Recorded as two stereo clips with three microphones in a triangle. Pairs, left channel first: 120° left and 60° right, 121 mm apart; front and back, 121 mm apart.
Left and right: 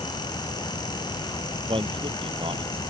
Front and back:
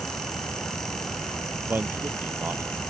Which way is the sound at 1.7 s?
105° right.